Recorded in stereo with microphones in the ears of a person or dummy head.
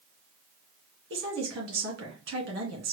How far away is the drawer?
No drawer in this recording.